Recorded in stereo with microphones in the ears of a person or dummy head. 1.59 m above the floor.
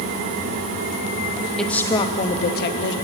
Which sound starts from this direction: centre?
A woman speaking, at 1.6 s.